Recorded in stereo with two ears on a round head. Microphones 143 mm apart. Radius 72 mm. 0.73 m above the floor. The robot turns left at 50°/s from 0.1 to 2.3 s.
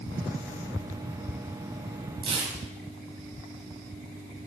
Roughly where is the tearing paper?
Right.